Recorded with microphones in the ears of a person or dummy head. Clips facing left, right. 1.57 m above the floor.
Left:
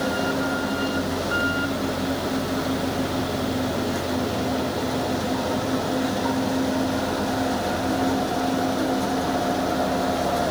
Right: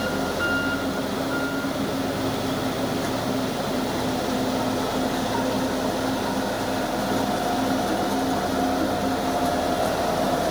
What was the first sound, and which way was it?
Only background noise.